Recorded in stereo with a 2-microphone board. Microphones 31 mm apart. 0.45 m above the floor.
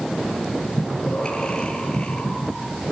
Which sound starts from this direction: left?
Breathing, at 0.8 s.